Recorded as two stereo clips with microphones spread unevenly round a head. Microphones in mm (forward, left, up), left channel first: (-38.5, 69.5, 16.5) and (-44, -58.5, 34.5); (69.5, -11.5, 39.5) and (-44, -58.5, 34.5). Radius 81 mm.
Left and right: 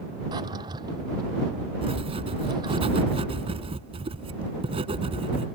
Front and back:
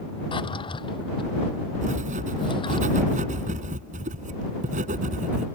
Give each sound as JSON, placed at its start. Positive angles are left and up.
{"t": 0.3, "sound": "a drawer", "azimuth_deg": -25}
{"t": 1.8, "sound": "writing", "azimuth_deg": -135}